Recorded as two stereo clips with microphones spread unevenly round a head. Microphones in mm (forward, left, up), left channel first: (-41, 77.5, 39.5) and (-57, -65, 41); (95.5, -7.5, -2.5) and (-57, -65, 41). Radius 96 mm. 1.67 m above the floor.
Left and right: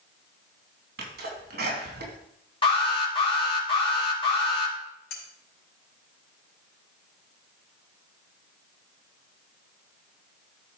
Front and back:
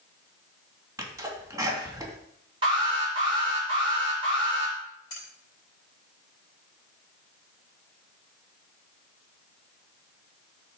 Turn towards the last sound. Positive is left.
turn(degrees=90)